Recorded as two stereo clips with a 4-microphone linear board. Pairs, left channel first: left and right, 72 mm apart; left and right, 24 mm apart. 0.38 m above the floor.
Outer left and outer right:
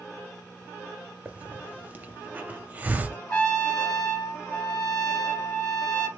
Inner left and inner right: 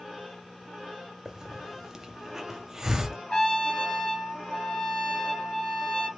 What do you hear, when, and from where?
1.2 s a hiss: 20° right (ahead or behind), 0.6 m
3.3 s a trumpet: 25° left (ahead or behind), 1.9 m